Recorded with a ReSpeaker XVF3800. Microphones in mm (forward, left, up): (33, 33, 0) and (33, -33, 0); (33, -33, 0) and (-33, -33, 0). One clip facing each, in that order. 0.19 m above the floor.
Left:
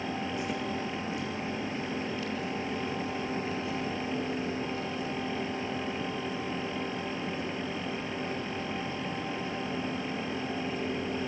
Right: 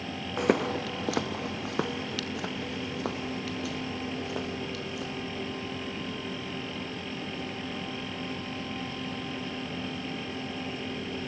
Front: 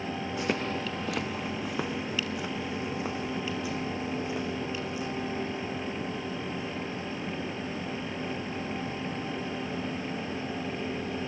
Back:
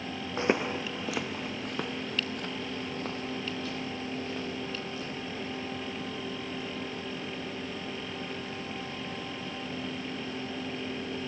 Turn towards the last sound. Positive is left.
turn(degrees=-75)